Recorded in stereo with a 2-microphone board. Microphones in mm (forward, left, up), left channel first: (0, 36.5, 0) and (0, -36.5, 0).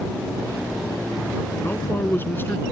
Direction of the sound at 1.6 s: 30° left (ahead or behind).